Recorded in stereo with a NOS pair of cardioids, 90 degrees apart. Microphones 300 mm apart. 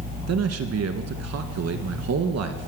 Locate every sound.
0.3 s a man speaking: 60° right, 1.6 m